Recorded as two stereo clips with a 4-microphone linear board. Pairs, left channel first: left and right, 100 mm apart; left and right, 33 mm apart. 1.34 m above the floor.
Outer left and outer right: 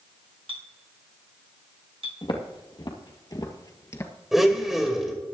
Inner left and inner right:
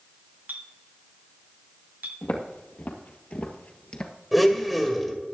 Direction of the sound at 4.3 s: 5° right (ahead or behind).